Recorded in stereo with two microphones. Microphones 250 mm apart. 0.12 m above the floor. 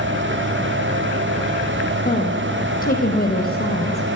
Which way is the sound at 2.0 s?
35° left (ahead or behind).